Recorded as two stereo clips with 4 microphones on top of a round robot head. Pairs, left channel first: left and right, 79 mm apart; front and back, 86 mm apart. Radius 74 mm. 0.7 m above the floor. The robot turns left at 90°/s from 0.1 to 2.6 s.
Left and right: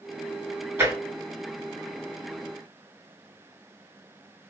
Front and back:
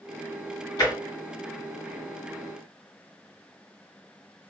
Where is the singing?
I don't hear singing.